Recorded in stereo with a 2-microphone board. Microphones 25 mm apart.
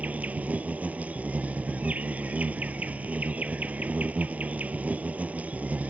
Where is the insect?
85° right.